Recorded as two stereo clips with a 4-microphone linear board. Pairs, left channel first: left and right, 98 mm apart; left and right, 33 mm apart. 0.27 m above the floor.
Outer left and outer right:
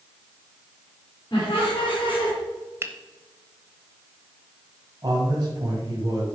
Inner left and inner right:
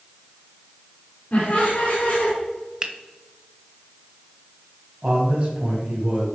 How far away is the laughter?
About 3.5 m.